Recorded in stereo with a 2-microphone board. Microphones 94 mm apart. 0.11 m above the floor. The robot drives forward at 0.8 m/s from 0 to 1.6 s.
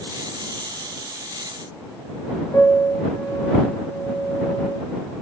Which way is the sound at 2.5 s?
40° left (ahead or behind).